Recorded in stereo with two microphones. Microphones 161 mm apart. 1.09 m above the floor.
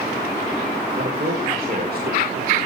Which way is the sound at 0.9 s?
60° right (ahead or behind).